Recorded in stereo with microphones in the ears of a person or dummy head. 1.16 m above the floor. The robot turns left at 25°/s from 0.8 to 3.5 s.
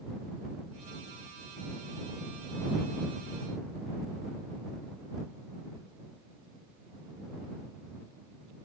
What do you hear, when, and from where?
Only background noise.